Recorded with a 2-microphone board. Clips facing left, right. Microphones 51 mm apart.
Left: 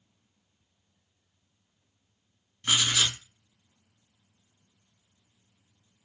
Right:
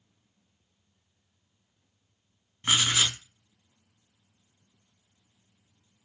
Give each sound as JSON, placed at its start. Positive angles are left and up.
{"t": 2.6, "sound": "writing", "side_deg": -25, "distance_m": 1.0}